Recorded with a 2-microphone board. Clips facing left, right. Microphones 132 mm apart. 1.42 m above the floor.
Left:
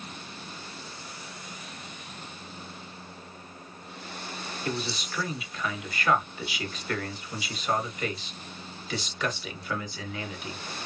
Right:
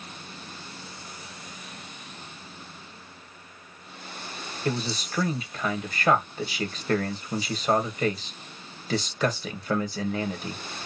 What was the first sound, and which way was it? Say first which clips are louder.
A man speaking: right 4 dB; 40° right (ahead or behind).